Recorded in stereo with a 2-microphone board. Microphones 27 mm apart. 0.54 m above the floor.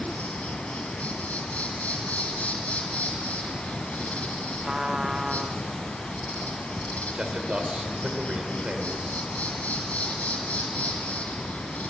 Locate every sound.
0.0 s an insect: 70° left (ahead or behind), 2.5 m
4.6 s a trumpet: 20° right (ahead or behind), 0.5 m
7.2 s a man speaking: 45° right (ahead or behind), 2.5 m